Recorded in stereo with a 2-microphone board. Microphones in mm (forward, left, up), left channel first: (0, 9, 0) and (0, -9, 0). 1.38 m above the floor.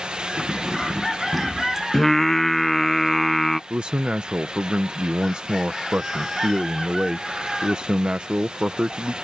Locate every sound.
0.4 s keys jangling: centre (ahead or behind); by 1.8 s 5° right (ahead or behind)
1.9 s singing: 15° left (ahead or behind)
3.7 s a man speaking: 65° right (ahead or behind)